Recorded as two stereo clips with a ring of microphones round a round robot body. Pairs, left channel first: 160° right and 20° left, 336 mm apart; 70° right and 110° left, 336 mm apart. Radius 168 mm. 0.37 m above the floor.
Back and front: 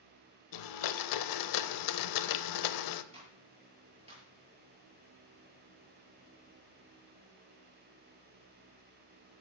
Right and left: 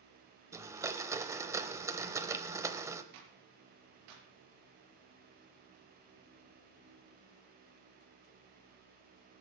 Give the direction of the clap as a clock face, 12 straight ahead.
9 o'clock.